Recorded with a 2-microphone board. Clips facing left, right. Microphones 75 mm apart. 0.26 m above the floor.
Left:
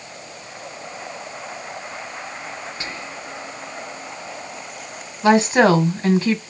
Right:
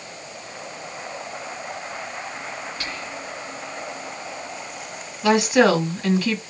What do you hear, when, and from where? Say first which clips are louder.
2.8 s whispering: even; 25° left (ahead or behind), 1.0 m
5.2 s a woman speaking: left 2 dB; 30° left (ahead or behind), 1.7 m